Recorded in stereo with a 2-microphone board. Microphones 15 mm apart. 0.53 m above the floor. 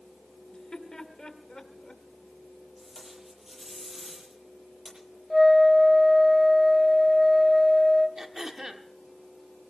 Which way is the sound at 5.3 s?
Centre (ahead or behind).